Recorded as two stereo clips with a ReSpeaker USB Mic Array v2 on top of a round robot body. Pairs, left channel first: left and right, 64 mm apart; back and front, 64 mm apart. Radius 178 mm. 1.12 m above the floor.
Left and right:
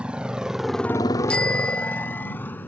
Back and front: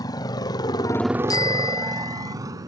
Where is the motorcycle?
165° right; by 2.7 s 30° left.